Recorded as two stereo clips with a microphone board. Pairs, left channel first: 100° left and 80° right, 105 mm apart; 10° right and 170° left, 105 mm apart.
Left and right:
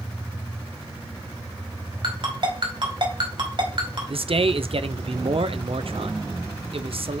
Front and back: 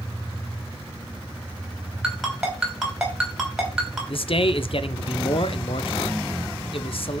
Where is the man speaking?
45° right, 0.5 m.